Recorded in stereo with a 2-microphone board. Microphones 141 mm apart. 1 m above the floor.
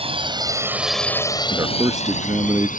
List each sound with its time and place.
0.0 s a drone: 45° right (ahead or behind); by 2.8 s 70° left (ahead or behind)
1.5 s a man speaking: 25° right (ahead or behind)